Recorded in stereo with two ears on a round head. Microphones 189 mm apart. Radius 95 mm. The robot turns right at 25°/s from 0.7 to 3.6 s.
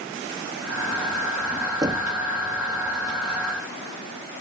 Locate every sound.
1.8 s knocking: 20° right (ahead or behind); by 2.1 s 25° right (ahead or behind)